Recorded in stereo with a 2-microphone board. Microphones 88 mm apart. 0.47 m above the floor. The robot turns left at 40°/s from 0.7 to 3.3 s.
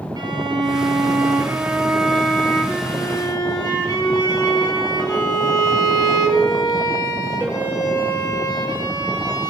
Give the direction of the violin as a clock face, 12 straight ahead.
4 o'clock.